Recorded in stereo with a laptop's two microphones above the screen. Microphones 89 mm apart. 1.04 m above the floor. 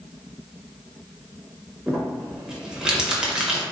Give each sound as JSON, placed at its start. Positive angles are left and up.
{"t": 1.9, "sound": "crumpling", "side_deg": -10, "distance_m": 0.8}